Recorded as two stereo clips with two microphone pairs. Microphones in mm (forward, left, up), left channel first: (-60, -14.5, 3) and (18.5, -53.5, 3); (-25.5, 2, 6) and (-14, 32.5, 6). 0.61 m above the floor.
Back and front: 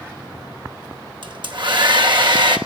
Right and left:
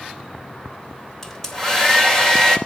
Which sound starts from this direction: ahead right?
A hair dryer, at 1.2 s.